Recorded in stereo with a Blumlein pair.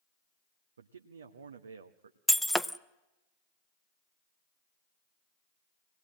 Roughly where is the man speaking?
Right.